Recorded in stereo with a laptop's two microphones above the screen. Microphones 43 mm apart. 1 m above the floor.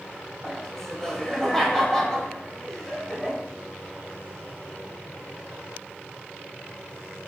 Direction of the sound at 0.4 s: 10° left (ahead or behind).